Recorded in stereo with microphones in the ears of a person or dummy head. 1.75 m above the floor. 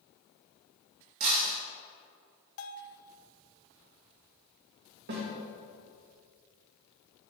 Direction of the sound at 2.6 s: 75° left (ahead or behind).